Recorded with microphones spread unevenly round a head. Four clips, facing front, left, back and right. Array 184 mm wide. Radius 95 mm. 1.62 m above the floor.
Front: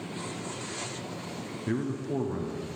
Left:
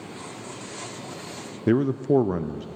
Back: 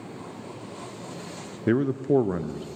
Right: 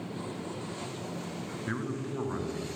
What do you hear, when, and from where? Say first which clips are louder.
1.7 s a man speaking: left 16 dB, back 9 dB; 115° left, 0.6 m